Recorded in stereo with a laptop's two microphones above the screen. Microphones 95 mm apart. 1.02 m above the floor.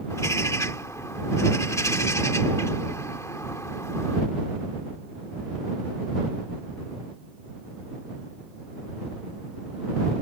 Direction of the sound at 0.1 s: 35° left (ahead or behind).